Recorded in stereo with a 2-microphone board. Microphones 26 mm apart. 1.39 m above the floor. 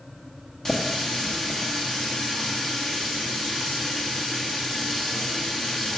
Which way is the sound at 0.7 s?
25° left (ahead or behind).